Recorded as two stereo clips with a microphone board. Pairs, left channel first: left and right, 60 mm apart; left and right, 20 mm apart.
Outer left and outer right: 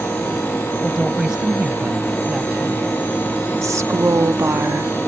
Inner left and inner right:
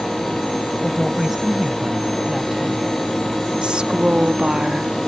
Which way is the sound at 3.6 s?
55° right (ahead or behind).